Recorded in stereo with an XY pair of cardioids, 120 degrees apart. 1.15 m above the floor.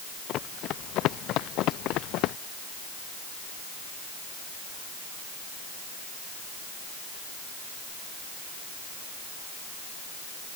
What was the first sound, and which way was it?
Running footsteps, 65° left.